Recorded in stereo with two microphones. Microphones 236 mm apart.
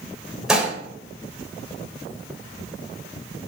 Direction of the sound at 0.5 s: Centre (ahead or behind).